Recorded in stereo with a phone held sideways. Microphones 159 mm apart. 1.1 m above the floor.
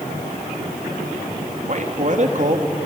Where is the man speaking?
50° right (ahead or behind), 2.5 m.